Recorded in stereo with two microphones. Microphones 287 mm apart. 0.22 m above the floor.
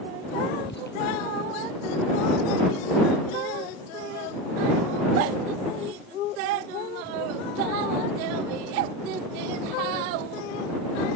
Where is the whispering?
40° left (ahead or behind).